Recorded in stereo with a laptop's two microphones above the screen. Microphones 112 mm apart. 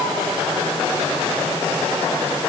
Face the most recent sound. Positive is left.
No sound to turn to.